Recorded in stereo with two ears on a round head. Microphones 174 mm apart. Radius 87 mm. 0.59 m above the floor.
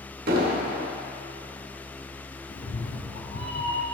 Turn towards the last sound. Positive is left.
turn(degrees=70)  # may be behind; listen again after turning